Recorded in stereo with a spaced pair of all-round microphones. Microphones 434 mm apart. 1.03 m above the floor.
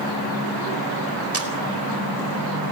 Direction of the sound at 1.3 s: 35° right (ahead or behind).